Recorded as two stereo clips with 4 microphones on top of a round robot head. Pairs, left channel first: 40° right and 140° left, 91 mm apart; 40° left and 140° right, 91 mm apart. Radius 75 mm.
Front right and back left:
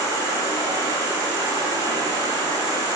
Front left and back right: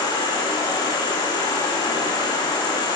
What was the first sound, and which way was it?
An insect, 90° left.